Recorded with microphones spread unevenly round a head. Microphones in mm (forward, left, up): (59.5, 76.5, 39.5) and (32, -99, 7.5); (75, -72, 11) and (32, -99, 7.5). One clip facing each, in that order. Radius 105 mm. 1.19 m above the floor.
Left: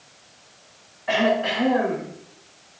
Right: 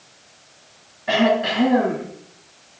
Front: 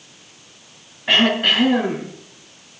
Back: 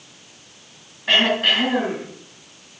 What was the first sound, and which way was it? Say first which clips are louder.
Throat clearing: right 3 dB, front 1 dB; 55° right.